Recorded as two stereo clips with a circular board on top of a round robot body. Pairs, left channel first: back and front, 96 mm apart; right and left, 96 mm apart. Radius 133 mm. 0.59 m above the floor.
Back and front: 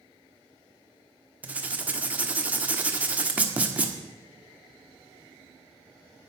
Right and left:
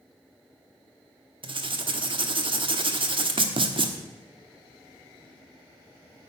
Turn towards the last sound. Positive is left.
turn(degrees=75)